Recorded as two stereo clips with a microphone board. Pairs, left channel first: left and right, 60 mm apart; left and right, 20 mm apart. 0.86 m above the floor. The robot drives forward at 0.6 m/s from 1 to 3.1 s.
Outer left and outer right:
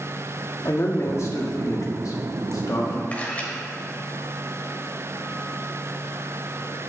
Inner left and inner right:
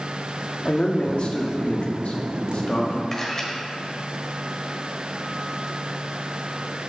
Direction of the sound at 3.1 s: 25° left (ahead or behind).